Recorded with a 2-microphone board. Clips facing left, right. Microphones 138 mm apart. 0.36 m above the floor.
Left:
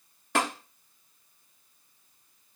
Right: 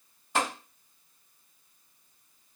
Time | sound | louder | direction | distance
0.3 | tapping | left 1 dB | 85° left | 1.9 m